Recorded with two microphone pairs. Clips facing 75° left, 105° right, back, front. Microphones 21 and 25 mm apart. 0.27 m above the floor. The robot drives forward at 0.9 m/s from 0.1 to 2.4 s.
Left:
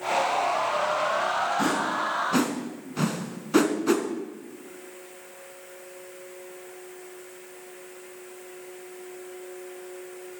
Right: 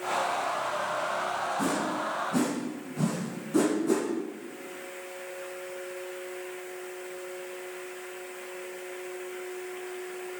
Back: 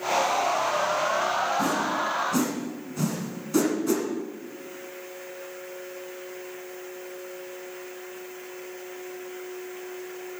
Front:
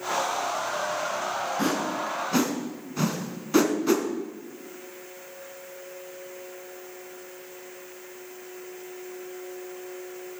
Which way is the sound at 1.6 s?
40° left.